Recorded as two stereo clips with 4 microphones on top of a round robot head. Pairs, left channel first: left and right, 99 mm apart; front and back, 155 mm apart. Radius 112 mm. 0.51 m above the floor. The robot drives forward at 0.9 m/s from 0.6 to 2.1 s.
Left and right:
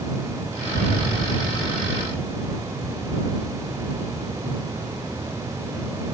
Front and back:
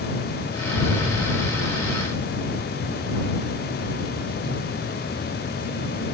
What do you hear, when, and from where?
0.7 s an explosion: 175° right, 7 m